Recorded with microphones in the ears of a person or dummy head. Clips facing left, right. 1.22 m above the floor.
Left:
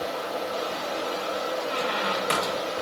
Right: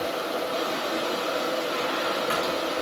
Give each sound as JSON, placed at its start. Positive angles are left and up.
{"t": 0.0, "sound": "running water", "side_deg": -45, "distance_m": 2.0}
{"t": 1.7, "sound": "a squeak", "side_deg": 60, "distance_m": 0.8}